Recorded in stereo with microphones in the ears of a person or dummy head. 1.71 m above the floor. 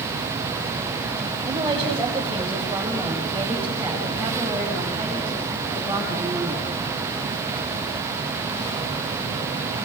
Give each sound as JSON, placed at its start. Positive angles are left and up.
{"t": 1.5, "sound": "a woman speaking", "side_deg": -15, "distance_m": 7.0}